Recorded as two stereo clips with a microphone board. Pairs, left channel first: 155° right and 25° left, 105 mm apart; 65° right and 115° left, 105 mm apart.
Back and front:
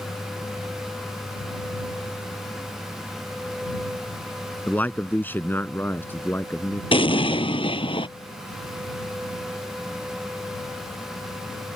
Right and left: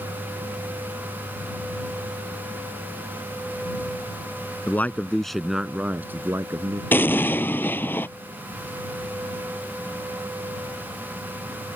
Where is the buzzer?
No buzzer in this recording.